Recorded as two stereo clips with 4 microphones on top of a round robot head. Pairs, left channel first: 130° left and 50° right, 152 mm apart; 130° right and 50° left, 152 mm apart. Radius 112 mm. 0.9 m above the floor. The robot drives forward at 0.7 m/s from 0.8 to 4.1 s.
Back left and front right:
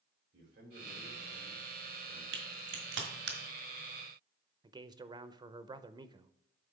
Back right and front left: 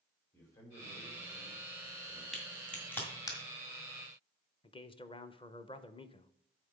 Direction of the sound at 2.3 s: 45° right.